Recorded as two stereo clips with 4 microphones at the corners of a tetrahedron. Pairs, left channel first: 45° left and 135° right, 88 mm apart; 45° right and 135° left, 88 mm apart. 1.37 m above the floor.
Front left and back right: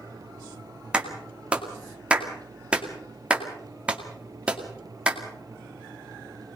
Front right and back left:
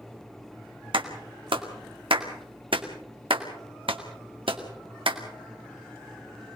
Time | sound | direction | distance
0.9 | a clap | 150° left | 2 m